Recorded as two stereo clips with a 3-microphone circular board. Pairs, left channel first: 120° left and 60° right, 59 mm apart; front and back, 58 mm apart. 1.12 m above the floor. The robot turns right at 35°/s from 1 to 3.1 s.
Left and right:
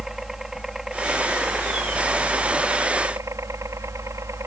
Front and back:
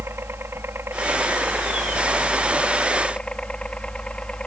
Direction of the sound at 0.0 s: 140° right.